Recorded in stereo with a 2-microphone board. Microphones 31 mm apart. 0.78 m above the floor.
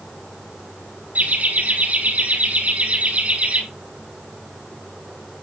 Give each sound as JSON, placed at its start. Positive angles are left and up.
{"t": 1.1, "sound": "laughter", "side_deg": -70, "distance_m": 9.0}